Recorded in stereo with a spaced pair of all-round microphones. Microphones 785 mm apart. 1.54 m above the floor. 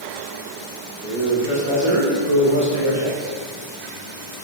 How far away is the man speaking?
About 2 m.